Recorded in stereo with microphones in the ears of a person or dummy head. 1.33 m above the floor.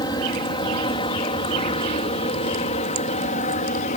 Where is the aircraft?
25° left (ahead or behind); by 4.0 s 40° left (ahead or behind).